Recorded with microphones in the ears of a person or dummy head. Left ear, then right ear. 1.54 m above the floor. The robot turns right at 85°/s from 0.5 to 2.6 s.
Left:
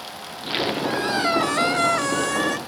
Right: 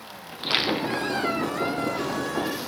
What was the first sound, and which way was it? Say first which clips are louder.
A squeak: right 1 dB; 25° right.